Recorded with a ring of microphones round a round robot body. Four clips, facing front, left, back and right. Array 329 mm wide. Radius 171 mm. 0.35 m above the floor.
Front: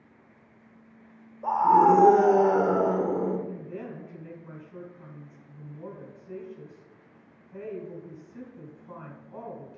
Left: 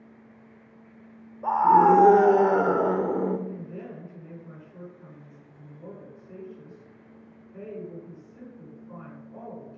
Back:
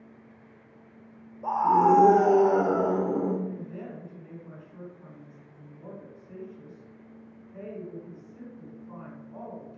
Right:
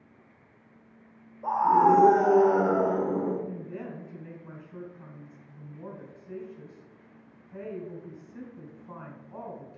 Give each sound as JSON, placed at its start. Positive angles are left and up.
{"t": 1.4, "sound": "a scream", "azimuth_deg": 75, "distance_m": 1.2}
{"t": 3.5, "sound": "a woman speaking", "azimuth_deg": -60, "distance_m": 3.5}